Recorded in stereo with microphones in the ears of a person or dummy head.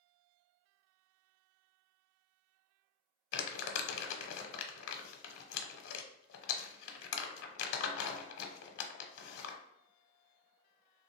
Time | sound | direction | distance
3.3 | crumpling | 60° left (ahead or behind) | 0.7 m